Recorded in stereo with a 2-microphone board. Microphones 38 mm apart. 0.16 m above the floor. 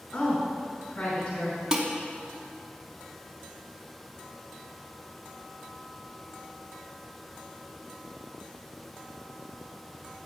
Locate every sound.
0.1 s a woman speaking: 30° left (ahead or behind), 1.4 m
1.7 s dishes clattering: 20° right (ahead or behind), 0.9 m